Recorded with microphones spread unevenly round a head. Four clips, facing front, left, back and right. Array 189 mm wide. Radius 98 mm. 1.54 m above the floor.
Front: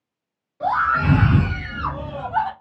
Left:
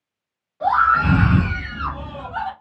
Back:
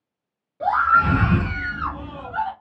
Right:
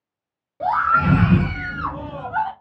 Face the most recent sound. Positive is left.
turn(degrees=-30)